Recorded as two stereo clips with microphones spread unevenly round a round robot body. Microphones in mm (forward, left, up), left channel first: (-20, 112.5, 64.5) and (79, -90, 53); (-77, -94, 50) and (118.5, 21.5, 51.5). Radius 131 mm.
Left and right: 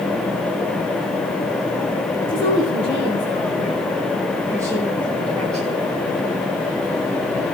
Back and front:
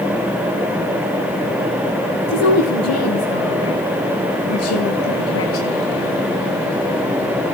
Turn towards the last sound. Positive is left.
turn(degrees=-150)